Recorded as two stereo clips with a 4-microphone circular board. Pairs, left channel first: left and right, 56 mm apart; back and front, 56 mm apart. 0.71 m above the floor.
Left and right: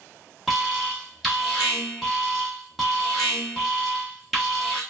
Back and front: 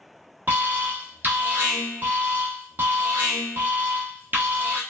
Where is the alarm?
5° left, 1.0 m.